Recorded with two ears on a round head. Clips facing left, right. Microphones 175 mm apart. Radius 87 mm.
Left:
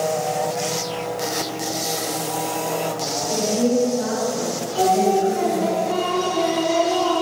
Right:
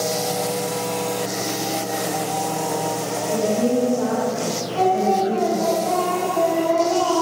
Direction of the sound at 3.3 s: 35° left (ahead or behind).